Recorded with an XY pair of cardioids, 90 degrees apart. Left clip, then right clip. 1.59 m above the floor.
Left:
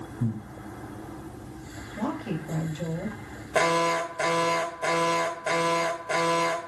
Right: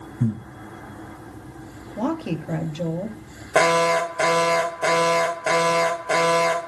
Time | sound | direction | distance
0.2 | breathing | 60° right | 2.5 m
2.0 | a woman speaking | 65° right | 3 m
3.5 | an alarm | 55° right | 1.4 m